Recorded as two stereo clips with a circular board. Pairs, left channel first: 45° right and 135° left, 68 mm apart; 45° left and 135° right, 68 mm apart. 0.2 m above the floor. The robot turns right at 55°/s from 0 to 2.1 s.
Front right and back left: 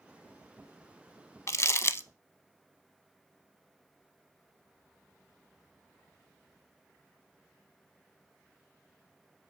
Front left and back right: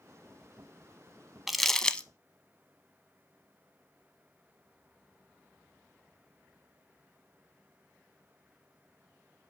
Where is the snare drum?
I don't hear a snare drum.